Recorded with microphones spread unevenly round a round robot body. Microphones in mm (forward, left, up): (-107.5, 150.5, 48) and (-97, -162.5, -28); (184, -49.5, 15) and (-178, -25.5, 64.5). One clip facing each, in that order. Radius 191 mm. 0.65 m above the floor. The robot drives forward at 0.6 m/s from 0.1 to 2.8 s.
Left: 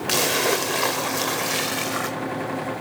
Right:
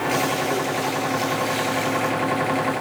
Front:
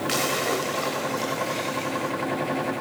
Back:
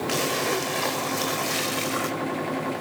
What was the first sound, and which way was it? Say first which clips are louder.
A splash: left 2 dB, back 1 dB; 80° left.